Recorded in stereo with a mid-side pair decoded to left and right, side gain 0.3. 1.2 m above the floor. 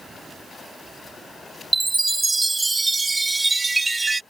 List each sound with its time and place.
1.7 s a chime: 30° right